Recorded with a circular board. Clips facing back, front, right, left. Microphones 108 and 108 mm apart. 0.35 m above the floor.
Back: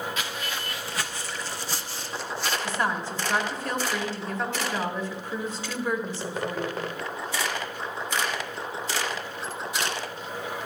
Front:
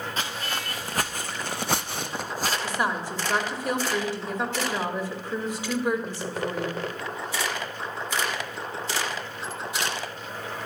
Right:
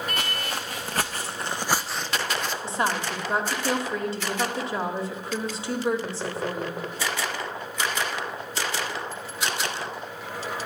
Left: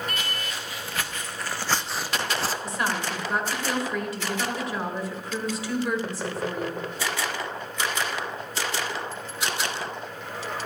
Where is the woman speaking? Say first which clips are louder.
Even, right 2 dB; 65° right, 1.6 m.